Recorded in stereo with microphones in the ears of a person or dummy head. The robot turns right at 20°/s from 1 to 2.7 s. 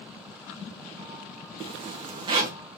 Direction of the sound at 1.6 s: 35° right (ahead or behind).